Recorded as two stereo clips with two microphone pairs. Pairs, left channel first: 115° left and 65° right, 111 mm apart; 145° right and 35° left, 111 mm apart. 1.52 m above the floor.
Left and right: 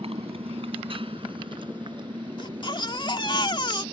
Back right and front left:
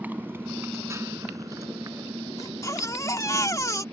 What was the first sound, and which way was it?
A motorcycle, 40° right.